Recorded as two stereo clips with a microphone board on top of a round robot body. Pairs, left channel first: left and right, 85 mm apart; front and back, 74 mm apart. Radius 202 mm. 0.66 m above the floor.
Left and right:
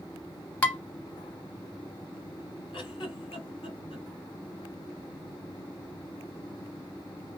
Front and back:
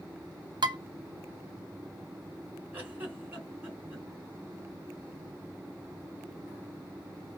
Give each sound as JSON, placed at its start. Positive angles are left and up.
{"t": 0.6, "sound": "dishes clattering", "azimuth_deg": 165, "distance_m": 1.2}
{"t": 2.7, "sound": "a giggle", "azimuth_deg": 110, "distance_m": 2.5}